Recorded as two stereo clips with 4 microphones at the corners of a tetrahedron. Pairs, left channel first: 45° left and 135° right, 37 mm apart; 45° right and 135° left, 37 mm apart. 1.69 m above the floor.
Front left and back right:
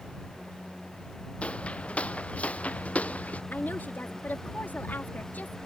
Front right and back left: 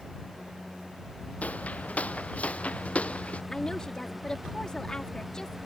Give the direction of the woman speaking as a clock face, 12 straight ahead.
11 o'clock.